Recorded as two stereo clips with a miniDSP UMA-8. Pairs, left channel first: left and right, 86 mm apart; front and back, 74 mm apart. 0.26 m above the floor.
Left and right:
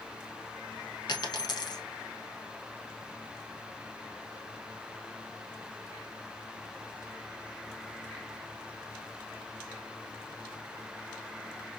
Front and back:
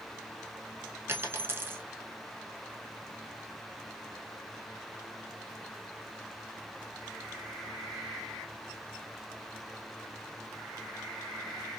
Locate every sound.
1.1 s a dropped coin: 125° left, 0.7 m